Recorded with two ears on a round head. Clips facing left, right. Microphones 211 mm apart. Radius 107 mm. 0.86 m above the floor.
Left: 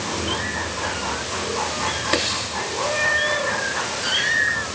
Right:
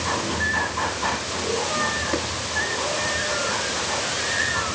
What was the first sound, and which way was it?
Only background noise.